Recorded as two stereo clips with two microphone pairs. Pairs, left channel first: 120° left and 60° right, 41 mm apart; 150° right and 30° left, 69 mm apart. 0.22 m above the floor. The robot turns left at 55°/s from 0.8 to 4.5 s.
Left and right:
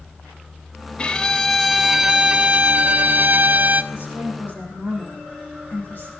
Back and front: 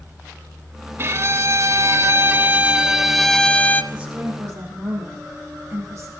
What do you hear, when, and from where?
1.0 s a violin: 65° left, 0.6 m; by 3.8 s 90° right, 0.6 m
3.9 s a woman speaking: 110° left, 8 m; by 6.1 s 80° left, 8 m